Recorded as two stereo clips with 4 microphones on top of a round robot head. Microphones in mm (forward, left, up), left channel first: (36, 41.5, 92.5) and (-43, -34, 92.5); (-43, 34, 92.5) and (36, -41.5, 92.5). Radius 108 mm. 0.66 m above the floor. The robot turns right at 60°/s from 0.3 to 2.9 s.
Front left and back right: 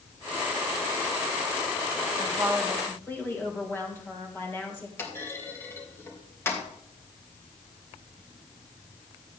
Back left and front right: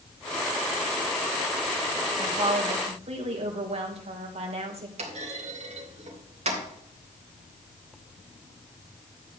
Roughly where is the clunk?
Ahead right.